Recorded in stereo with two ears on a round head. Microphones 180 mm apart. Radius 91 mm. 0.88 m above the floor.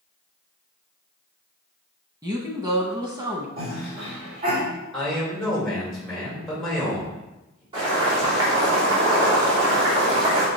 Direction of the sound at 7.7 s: 25° right (ahead or behind).